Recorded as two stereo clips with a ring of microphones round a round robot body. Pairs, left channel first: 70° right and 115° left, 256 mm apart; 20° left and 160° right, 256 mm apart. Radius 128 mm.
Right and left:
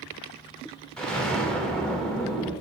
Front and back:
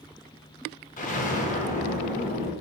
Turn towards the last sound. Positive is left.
turn(degrees=15)